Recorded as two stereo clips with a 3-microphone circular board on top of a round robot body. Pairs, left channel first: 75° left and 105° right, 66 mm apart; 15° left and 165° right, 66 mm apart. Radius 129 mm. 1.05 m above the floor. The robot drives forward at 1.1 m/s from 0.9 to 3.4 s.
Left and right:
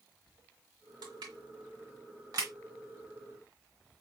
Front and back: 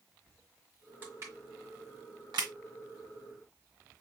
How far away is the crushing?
About 1.5 m.